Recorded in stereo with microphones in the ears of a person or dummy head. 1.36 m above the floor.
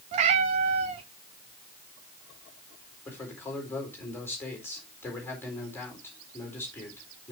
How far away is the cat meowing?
About 0.9 m.